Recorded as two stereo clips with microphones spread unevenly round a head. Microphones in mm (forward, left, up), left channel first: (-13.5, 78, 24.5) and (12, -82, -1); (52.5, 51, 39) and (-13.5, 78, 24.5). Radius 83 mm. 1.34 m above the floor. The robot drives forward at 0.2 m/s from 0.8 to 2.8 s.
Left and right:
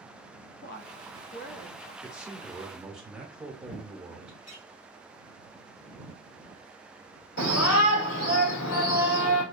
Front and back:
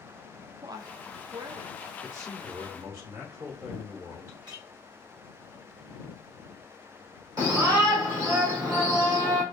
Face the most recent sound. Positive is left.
turn(degrees=125)